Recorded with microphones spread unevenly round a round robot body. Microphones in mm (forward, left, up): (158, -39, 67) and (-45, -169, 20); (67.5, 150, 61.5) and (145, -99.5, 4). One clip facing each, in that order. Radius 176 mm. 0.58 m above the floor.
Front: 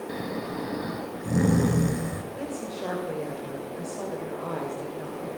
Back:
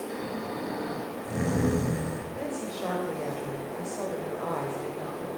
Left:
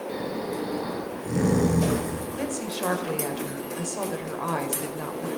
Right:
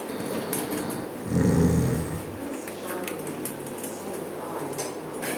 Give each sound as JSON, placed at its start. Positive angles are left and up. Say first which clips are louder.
{"t": 0.1, "sound": "snoring", "louder": "front 2 dB, even", "azimuth_deg": 0, "distance_m": 3.5}
{"t": 2.3, "sound": "a woman speaking", "louder": "even, left 4 dB", "azimuth_deg": 120, "distance_m": 3.0}